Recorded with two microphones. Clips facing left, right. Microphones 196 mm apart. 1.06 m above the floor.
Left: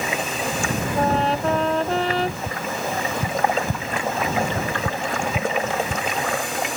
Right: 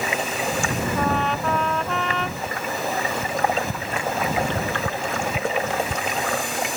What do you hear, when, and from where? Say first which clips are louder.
1.0 s a trumpet: left 5 dB; 30° left (ahead or behind)
2.5 s tapping: even; 25° left (ahead or behind)